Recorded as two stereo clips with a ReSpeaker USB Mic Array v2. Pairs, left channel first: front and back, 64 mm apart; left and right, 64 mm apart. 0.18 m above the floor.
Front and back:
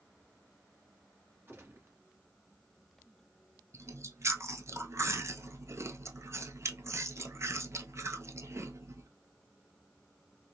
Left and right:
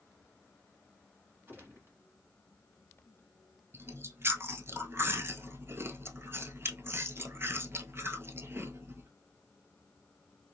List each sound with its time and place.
1.5 s a gunshot: 135° right, 1.3 m
3.7 s chewing: 140° right, 0.6 m